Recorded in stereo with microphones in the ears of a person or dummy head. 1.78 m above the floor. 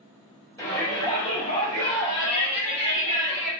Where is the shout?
20° left (ahead or behind), 1.2 m; by 3.5 s 70° left (ahead or behind), 1.3 m.